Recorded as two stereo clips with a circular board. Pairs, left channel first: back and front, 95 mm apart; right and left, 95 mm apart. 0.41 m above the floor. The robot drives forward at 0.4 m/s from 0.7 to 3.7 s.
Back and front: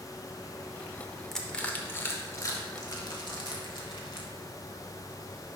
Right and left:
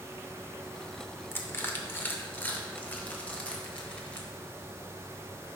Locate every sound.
1.3 s crushing: 100° right, 0.7 m; by 4.3 s 165° right, 1.2 m